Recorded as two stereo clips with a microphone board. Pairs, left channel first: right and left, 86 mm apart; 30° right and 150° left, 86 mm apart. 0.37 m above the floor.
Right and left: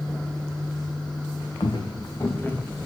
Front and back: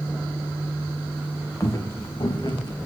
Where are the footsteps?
85° right, 0.9 m; by 2.7 s 10° right, 1.1 m.